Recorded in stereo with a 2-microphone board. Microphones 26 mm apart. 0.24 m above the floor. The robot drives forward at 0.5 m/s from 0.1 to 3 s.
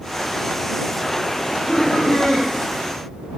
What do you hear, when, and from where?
1.4 s laughter: 30° left (ahead or behind), 6.5 m; by 2.5 s 25° left (ahead or behind), 7 m